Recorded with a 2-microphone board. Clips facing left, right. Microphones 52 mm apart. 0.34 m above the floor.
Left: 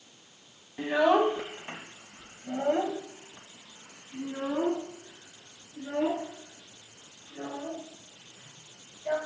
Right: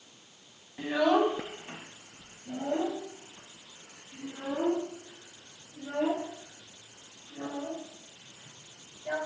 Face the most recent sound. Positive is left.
turn(degrees=25)  # may be behind; listen again after turning